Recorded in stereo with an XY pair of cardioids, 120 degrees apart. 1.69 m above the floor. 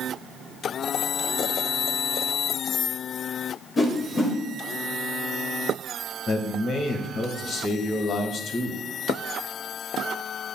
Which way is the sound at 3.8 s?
40° left.